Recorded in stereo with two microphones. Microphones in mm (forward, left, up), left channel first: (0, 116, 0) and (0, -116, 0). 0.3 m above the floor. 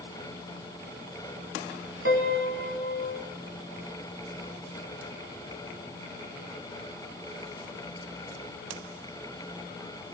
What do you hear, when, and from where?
2.0 s a piano: 60° right (ahead or behind), 1.3 m